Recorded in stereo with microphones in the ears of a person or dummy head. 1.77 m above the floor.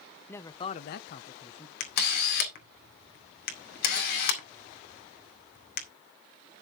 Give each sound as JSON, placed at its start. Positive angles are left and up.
{"t": 0.3, "sound": "a man speaking", "side_deg": 10, "distance_m": 1.0}
{"t": 1.8, "sound": "a camera shutter", "side_deg": 55, "distance_m": 2.0}